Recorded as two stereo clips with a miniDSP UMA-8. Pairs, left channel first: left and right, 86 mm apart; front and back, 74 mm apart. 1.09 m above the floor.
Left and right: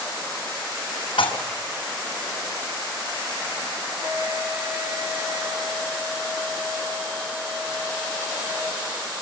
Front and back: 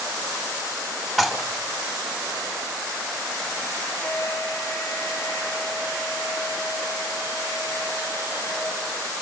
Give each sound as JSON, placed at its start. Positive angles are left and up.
{"t": 1.2, "sound": "dishes clattering", "azimuth_deg": 90, "distance_m": 4.5}
{"t": 4.0, "sound": "a flute", "azimuth_deg": -55, "distance_m": 6.5}